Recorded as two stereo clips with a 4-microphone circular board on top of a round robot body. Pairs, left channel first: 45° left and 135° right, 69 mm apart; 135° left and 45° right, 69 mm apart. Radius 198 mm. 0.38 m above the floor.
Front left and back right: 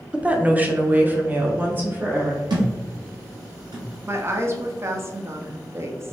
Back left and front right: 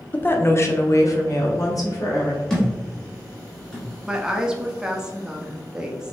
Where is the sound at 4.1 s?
120° right, 0.9 m.